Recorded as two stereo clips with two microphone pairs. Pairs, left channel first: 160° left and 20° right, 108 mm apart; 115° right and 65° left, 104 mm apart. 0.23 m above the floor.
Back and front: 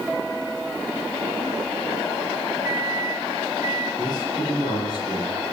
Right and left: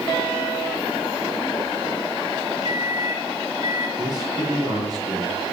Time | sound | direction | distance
2.6 | a microwave | 40° left | 3 m
4.0 | a man speaking | 115° left | 6 m